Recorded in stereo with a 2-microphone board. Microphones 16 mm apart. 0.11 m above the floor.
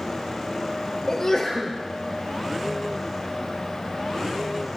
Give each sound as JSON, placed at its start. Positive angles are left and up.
{"t": 1.1, "sound": "a sneeze", "side_deg": 35, "distance_m": 1.7}